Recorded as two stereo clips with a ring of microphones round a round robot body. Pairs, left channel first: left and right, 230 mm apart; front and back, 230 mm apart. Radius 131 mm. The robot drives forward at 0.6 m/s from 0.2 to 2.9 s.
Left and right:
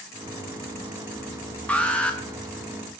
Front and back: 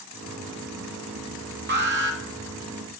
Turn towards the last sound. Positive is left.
turn(degrees=175)